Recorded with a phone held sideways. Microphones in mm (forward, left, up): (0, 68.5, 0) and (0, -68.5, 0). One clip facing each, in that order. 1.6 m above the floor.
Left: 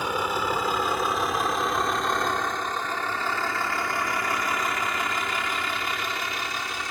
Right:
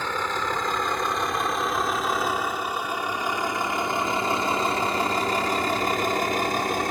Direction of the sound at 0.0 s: 15° left (ahead or behind).